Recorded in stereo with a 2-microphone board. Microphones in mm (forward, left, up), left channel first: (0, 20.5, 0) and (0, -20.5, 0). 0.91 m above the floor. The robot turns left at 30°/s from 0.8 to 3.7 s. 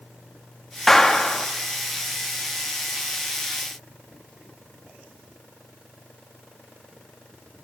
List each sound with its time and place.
0.9 s a clap: 5° left (ahead or behind), 1.5 m; by 1.5 s 20° left (ahead or behind), 1.5 m